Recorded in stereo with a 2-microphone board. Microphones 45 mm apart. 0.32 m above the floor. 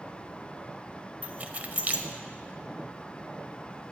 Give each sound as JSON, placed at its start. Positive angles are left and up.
{"t": 1.2, "sound": "keys jangling", "side_deg": -35, "distance_m": 0.7}